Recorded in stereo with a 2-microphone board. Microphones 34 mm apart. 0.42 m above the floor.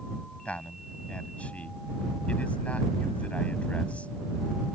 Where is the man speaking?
40° left (ahead or behind).